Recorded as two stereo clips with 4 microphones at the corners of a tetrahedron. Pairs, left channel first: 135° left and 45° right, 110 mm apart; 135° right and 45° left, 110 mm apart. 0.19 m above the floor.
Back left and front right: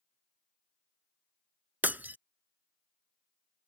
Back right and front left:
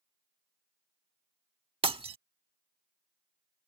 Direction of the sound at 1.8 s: 25° left.